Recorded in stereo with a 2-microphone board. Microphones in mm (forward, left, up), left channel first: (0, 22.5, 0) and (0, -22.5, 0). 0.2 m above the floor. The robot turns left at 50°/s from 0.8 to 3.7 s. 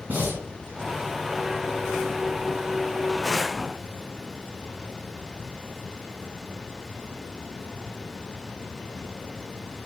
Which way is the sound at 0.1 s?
35° right (ahead or behind).